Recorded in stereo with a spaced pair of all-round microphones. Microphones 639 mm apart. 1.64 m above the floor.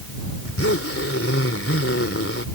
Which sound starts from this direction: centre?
A zipper, at 0.4 s.